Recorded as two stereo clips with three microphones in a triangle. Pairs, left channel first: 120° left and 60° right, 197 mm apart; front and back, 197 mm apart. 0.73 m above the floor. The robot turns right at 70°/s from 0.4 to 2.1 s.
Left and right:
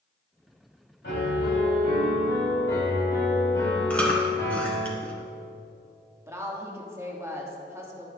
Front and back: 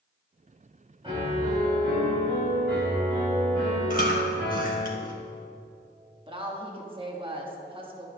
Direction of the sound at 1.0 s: 120° left.